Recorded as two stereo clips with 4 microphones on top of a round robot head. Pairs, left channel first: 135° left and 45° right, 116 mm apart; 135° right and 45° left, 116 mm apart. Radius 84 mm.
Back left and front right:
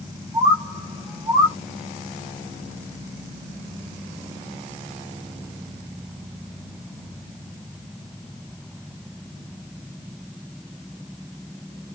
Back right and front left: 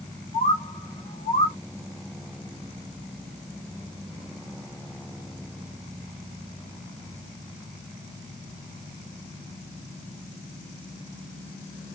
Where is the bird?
100° right, 0.7 m.